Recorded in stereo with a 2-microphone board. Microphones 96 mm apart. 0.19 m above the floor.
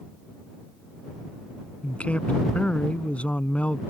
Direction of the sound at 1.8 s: 15° left (ahead or behind).